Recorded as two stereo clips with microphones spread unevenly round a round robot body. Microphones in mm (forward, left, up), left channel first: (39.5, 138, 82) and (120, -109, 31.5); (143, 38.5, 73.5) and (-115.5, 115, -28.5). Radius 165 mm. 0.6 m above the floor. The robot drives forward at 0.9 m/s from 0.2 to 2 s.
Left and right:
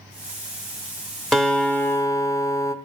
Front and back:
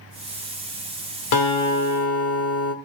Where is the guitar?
15° left, 1.8 m; by 2.8 s 25° left, 1.2 m.